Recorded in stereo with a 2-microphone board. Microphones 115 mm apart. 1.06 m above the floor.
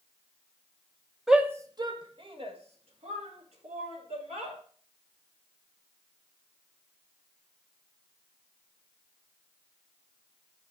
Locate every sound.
1.3 s a shout: centre (ahead or behind), 0.8 m; by 4.6 s 65° right (ahead or behind), 4.5 m